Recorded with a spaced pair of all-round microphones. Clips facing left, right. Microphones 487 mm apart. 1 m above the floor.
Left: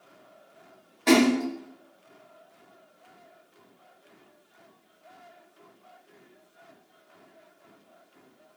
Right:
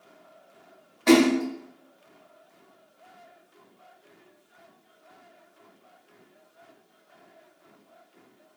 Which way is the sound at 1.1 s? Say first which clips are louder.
Right 2 dB; 30° right (ahead or behind).